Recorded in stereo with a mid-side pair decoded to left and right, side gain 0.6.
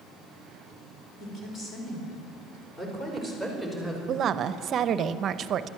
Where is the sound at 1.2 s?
45° left, 4.5 m; by 4.0 s 10° left, 5 m.